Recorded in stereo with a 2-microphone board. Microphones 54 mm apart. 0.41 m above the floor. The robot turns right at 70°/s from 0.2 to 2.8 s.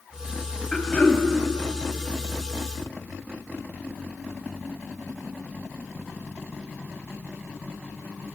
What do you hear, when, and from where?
0.7 s throat clearing: 10° left, 0.7 m; by 1.2 s 50° left, 0.7 m